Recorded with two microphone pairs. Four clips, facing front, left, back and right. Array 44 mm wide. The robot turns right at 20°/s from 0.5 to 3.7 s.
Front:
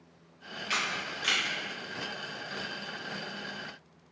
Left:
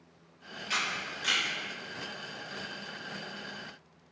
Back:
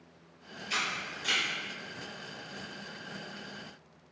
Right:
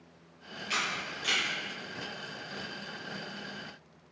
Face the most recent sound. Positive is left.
turn(degrees=55)